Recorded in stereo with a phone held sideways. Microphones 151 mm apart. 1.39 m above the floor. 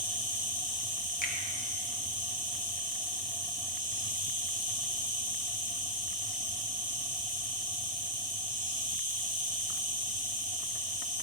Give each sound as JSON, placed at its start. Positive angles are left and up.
{"t": 0.0, "sound": "an insect", "side_deg": -65, "distance_m": 3.0}
{"t": 1.2, "sound": "a finger snap", "side_deg": 70, "distance_m": 1.3}